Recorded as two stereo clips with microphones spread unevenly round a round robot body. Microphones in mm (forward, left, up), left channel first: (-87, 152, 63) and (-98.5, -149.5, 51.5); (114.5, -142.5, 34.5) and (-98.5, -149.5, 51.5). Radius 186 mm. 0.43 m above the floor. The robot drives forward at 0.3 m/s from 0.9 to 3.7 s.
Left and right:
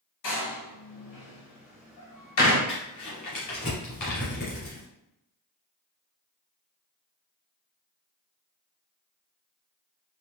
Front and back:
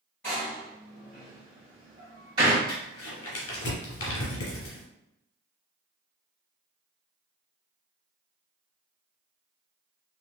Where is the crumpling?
20° left, 1.8 m.